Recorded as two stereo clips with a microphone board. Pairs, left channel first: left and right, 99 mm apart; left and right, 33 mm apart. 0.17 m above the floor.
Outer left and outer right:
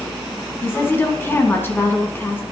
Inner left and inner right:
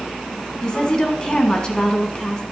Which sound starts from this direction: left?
A woman speaking, at 0.6 s.